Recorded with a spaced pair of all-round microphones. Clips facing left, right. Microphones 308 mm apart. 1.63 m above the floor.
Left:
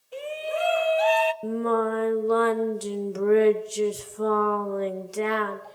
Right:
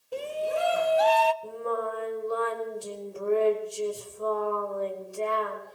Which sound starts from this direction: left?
Singing, at 1.4 s.